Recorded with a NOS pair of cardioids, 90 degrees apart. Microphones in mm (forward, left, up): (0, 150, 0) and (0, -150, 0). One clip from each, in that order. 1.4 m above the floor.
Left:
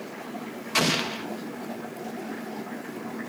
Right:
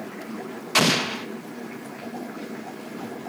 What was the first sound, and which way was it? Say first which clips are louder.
An explosion: right 4 dB; 25° right.